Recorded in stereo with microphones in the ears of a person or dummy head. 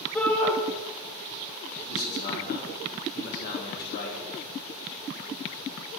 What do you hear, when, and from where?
0.1 s a shout: 10° left (ahead or behind), 1.6 m
1.9 s a man speaking: 55° left (ahead or behind), 2.5 m